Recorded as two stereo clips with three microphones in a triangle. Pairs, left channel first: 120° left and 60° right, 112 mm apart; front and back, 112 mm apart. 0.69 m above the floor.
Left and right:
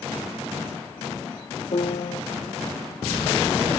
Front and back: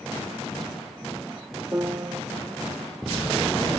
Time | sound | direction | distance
1.7 | a piano | 120° left | 0.6 m